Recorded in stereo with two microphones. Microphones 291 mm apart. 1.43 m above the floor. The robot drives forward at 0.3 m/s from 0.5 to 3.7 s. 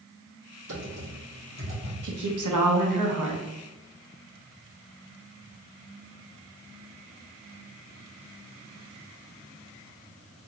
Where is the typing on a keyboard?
70° right (ahead or behind), 1.2 m; by 1.9 s 55° right (ahead or behind), 1.4 m.